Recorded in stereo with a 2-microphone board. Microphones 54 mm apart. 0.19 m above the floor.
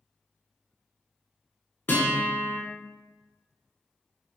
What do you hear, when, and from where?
1.9 s a guitar: 40° left (ahead or behind), 1.0 m